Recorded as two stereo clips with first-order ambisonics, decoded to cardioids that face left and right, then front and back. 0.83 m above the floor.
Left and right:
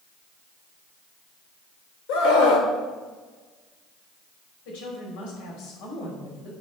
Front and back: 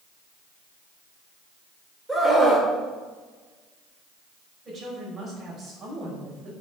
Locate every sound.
2.1 s a scream: 95° left, 3 m
4.7 s a woman speaking: 105° left, 5 m